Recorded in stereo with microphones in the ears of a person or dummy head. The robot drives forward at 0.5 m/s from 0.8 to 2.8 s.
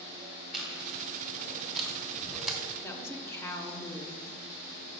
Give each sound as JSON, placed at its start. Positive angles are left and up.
{"t": 0.5, "sound": "chewing", "side_deg": 0, "distance_m": 1.9}
{"t": 2.8, "sound": "a woman speaking", "side_deg": 15, "distance_m": 0.8}